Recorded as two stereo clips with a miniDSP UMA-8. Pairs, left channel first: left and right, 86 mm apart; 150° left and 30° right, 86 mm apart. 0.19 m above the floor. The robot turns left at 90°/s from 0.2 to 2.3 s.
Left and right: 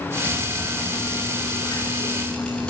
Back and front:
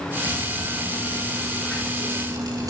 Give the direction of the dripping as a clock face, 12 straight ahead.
5 o'clock.